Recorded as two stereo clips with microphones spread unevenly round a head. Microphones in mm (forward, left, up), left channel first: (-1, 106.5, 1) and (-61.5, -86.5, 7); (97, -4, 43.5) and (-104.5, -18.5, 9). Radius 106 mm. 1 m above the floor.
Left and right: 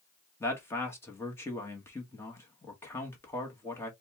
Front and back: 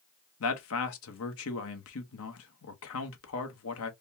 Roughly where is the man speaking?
Ahead.